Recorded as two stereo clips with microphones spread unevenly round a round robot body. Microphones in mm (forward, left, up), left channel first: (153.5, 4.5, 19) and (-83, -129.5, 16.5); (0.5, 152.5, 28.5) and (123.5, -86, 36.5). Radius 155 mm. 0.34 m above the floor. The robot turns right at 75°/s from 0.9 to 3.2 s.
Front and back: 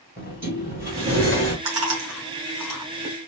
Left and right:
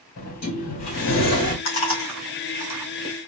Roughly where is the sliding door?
Behind left.